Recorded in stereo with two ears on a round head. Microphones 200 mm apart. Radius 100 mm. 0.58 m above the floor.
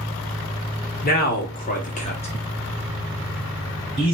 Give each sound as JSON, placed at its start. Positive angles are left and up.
{"t": 1.0, "sound": "a man speaking", "side_deg": 40, "distance_m": 1.1}